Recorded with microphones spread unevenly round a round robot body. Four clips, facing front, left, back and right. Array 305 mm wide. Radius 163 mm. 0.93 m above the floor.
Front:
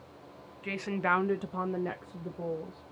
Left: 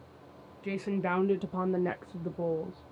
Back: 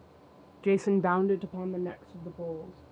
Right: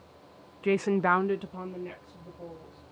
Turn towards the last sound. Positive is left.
turn(degrees=75)